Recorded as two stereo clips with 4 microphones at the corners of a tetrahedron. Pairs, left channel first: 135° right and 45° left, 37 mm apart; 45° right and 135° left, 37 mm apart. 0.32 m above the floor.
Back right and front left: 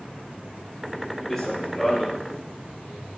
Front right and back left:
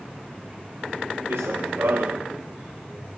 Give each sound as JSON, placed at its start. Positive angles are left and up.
{"t": 1.3, "sound": "running footsteps", "azimuth_deg": 145, "distance_m": 2.0}